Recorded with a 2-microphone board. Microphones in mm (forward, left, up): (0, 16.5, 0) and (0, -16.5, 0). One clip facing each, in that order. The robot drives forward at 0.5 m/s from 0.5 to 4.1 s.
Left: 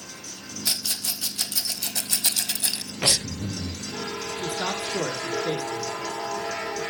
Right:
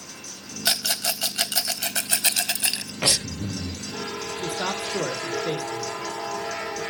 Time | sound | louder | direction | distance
0.7 | a rattle | right 5 dB | 75° right (ahead or behind) | 0.8 m
3.0 | breathing | even | 25° right (ahead or behind) | 0.8 m
4.4 | a man speaking | right 1 dB | centre (ahead or behind) | 1.8 m